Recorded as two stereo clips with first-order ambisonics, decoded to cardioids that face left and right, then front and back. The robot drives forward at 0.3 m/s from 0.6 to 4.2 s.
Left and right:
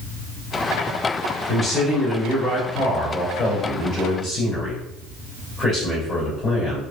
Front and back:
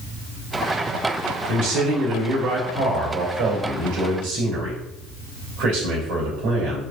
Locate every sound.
1.5 s a man speaking: straight behind, 2 m